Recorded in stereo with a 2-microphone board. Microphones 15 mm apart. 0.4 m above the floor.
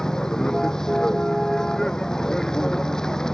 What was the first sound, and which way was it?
A vehicle, 50° left (ahead or behind).